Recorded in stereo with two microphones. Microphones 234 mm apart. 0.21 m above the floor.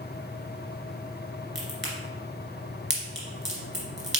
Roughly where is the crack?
Right.